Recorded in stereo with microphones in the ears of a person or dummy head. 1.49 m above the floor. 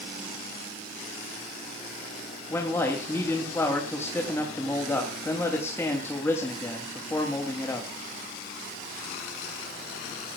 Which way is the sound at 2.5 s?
15° left (ahead or behind).